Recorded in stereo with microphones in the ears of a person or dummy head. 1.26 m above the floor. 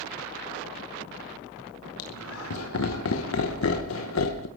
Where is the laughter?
80° left, 1.0 m.